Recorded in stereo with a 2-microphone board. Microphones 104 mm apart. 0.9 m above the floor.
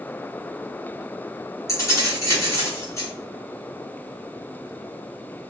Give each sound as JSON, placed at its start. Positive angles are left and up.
{"t": 1.7, "sound": "keys jangling", "side_deg": 30, "distance_m": 1.5}